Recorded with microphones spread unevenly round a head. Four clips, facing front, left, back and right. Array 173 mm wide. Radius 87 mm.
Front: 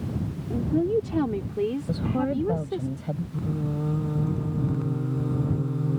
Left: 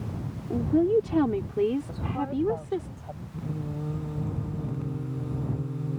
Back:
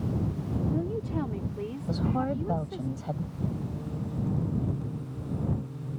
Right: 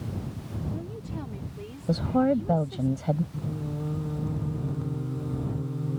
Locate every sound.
0.5 s a woman speaking: 55° left; by 2.9 s 50° left
1.9 s a woman speaking: 80° right
3.3 s singing: 5° right